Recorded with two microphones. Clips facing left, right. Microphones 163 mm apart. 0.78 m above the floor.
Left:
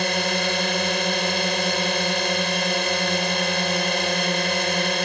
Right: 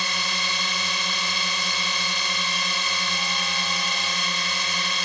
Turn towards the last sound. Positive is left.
turn(degrees=60)  # may be behind; listen again after turning